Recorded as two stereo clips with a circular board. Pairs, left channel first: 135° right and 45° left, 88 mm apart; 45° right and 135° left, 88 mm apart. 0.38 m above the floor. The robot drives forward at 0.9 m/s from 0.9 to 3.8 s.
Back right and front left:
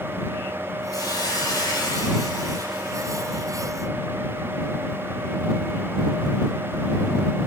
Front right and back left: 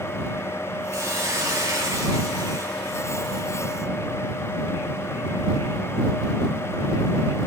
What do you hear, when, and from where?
0.9 s a hiss: 170° right, 3 m; by 3.5 s 175° right, 5 m